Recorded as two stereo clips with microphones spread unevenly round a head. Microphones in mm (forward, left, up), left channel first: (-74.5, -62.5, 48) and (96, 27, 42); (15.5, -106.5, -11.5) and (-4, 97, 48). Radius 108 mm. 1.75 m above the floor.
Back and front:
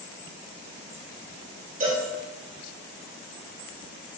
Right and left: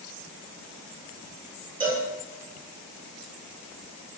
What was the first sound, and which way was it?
A cowbell, 70° left.